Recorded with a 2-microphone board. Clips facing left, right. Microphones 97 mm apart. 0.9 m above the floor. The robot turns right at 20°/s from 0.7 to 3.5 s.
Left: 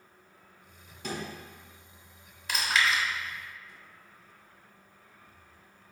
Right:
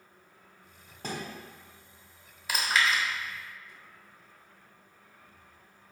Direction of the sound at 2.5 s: 5° right (ahead or behind).